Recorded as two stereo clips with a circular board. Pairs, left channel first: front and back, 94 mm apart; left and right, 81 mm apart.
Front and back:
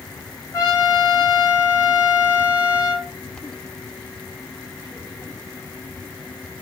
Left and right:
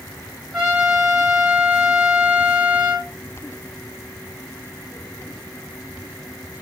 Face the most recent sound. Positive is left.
turn(degrees=-5)